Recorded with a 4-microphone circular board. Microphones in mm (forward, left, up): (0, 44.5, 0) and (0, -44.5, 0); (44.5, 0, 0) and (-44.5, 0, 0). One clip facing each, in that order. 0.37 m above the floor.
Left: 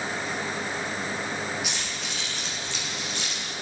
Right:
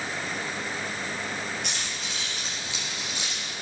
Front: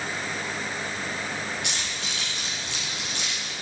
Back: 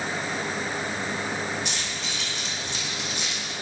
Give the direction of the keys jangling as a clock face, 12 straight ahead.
12 o'clock.